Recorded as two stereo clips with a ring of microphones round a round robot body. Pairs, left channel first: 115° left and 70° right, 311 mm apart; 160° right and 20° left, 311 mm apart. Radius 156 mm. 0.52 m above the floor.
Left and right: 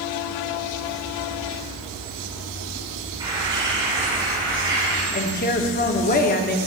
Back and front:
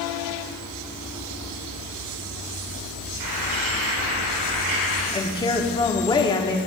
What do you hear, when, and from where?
3.2 s a bird: 10° left, 4 m
5.1 s a woman speaking: 140° left, 0.8 m